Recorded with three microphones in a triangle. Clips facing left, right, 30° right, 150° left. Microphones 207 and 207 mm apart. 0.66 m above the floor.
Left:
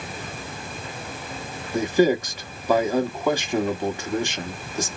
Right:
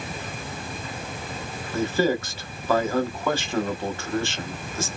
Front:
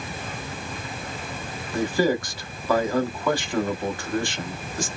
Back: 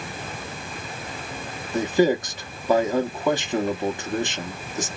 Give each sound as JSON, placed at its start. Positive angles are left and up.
{"t": 1.7, "sound": "a man speaking", "azimuth_deg": 135, "distance_m": 0.8}